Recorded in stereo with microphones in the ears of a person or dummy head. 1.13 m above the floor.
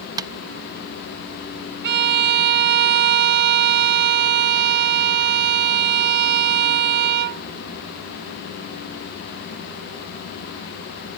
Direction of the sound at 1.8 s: 60° right (ahead or behind).